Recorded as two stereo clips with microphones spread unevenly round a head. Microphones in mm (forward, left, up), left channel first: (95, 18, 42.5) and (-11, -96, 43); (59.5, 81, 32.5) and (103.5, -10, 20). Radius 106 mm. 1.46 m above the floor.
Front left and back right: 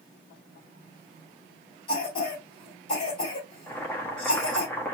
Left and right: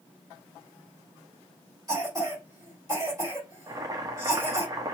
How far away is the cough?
About 3.5 m.